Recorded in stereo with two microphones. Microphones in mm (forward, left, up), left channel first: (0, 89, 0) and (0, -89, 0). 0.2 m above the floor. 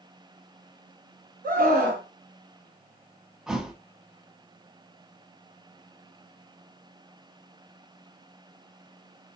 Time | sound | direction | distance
1.4 | a scream | 60° right (ahead or behind) | 2.0 m
3.5 | a thud | 5° right (ahead or behind) | 0.5 m